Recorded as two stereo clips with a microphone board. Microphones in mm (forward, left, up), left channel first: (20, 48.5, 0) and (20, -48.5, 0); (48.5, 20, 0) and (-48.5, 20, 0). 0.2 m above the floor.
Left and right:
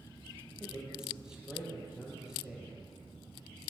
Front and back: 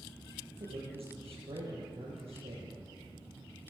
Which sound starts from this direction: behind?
A man speaking, at 0.6 s.